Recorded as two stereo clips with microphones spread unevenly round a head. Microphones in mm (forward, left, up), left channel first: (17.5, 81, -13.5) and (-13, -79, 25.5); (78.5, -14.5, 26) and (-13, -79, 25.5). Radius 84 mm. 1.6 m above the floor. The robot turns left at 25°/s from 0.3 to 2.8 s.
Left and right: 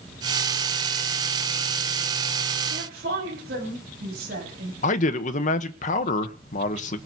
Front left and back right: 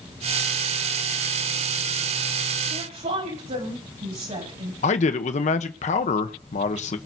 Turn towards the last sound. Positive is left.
turn(degrees=35)